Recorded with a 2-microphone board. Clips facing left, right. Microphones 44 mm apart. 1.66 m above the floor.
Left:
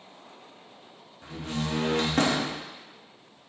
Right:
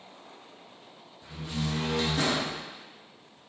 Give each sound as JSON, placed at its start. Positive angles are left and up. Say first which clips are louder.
{"t": 1.2, "sound": "a door slam", "louder": "left 2 dB", "side_deg": 50, "distance_m": 0.7}